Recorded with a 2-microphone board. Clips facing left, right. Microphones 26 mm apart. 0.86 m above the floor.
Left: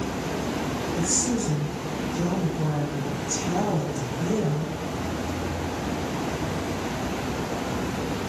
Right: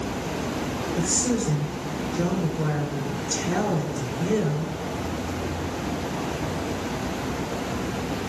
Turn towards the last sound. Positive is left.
turn(degrees=-70)  # may be behind; listen again after turning